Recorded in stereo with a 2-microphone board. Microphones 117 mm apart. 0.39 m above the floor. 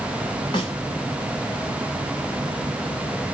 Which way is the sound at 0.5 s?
40° left (ahead or behind).